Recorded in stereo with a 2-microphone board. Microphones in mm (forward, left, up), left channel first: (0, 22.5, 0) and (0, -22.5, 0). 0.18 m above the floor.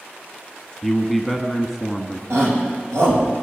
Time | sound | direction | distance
0.8 | a man speaking | centre (ahead or behind) | 1.3 m
2.3 | a shout | 75° right (ahead or behind) | 8 m